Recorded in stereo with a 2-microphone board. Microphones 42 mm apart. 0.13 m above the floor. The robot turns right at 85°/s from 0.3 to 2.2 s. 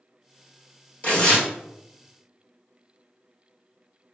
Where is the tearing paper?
135° left, 1.4 m; by 1.5 s 175° left, 1.4 m.